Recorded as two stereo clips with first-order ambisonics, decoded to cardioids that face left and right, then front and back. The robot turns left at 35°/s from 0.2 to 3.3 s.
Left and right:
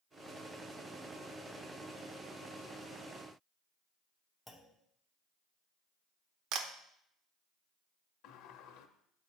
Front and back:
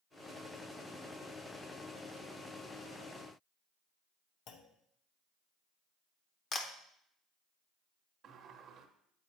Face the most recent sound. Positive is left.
turn(degrees=120)